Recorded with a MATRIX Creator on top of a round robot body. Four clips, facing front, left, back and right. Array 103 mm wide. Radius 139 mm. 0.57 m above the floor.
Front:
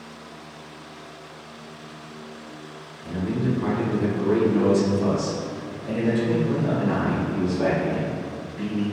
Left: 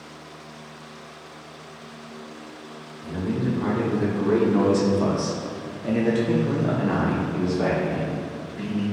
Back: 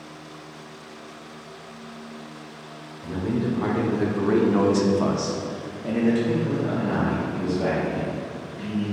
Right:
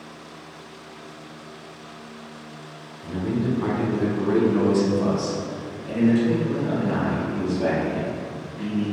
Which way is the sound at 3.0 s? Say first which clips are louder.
Right 1 dB, even; 165° right.